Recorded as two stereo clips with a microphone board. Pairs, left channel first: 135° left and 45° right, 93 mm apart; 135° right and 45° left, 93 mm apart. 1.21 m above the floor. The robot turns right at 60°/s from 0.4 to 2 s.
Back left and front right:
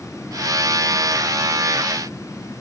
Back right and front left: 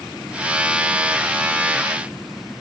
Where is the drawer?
No drawer in this recording.